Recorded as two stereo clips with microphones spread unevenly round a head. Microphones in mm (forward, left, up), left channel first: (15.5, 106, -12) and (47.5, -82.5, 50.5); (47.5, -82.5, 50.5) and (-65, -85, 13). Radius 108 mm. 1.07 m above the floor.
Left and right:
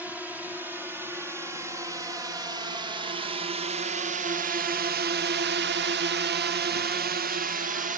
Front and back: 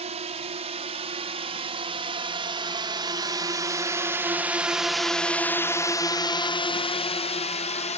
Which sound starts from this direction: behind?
A drone, at 0.0 s.